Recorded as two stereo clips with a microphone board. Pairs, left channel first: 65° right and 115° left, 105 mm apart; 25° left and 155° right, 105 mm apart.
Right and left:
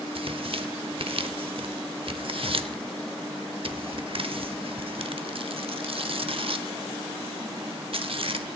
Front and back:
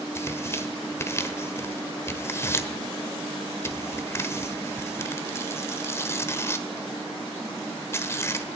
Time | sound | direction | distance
0.1 | tearing paper | 85° left | 0.9 m